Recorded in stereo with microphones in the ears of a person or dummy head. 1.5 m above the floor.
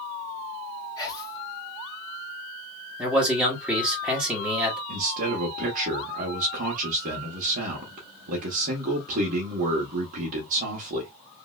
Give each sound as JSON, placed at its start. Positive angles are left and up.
{"t": 1.0, "sound": "whispering", "side_deg": 25, "distance_m": 1.8}
{"t": 3.0, "sound": "a man speaking", "side_deg": -5, "distance_m": 1.2}
{"t": 4.9, "sound": "a man speaking", "side_deg": -40, "distance_m": 0.9}